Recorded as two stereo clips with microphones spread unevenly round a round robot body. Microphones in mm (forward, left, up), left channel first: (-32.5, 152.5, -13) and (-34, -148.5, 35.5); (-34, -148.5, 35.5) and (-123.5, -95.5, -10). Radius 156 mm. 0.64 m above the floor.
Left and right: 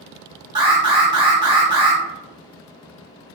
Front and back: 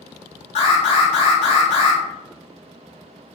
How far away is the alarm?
About 0.8 m.